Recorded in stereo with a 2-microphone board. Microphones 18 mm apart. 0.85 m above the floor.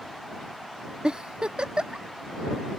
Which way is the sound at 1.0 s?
55° right (ahead or behind).